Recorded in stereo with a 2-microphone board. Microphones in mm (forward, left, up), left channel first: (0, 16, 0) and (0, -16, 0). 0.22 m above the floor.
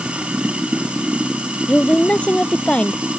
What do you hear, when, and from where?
0.0 s running water: 35° right (ahead or behind)
1.7 s a woman speaking: 40° left (ahead or behind)